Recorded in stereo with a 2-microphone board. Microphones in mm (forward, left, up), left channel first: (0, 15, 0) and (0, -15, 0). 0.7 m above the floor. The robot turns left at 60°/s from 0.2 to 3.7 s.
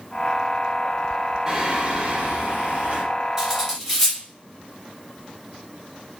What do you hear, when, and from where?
1.5 s singing: 30° right, 1.7 m; by 3.0 s 125° right, 1.7 m
3.4 s cutlery clinking: 10° right (ahead or behind), 2 m; by 4.2 s 10° left (ahead or behind), 2 m